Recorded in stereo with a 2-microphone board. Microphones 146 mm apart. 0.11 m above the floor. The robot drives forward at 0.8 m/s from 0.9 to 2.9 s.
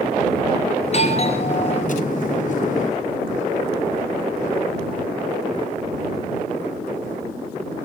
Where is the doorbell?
45° left (ahead or behind), 2 m; by 2.0 s 40° left (ahead or behind), 2.5 m.